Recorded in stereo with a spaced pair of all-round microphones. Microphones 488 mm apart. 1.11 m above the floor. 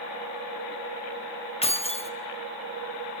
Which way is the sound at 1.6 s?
10° left (ahead or behind).